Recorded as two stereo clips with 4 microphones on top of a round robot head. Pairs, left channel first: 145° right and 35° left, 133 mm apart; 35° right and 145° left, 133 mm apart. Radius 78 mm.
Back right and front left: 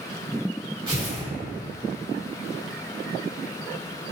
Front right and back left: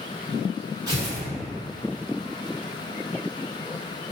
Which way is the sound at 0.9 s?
85° left.